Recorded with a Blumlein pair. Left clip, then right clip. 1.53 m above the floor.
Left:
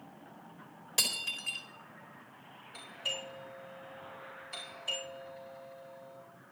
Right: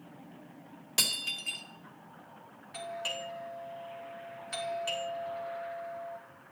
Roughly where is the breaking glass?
Ahead.